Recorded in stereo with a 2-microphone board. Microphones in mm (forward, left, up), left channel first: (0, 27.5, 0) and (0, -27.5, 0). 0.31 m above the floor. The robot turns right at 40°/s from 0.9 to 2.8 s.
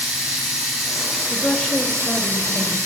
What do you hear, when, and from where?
0.0 s running water: 170° right, 4 m; by 2.9 s 90° right, 4 m
1.3 s a woman speaking: 10° right, 0.9 m; by 2.8 s 50° left, 0.9 m